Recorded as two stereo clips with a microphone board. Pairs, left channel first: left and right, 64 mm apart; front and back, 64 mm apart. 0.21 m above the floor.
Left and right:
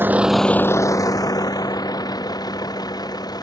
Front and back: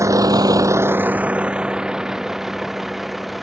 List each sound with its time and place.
0.0 s a vehicle: 145° right; by 3.4 s 90° left